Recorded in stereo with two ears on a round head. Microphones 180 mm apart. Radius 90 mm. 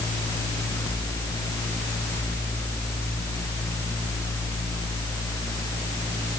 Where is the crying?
I don't hear crying.